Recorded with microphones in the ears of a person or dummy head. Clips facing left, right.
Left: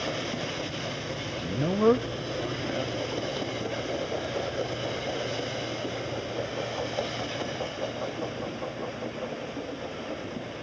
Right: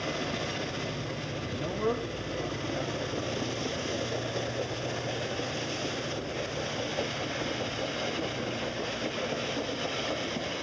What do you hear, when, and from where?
1.3 s a man speaking: 30° left (ahead or behind), 0.8 m; by 3.8 s 20° left (ahead or behind), 2.5 m